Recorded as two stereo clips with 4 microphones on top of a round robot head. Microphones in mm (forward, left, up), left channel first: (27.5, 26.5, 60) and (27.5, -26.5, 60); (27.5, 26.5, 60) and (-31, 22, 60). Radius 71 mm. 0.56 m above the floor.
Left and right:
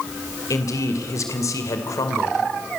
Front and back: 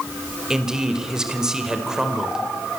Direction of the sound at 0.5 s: 105° left.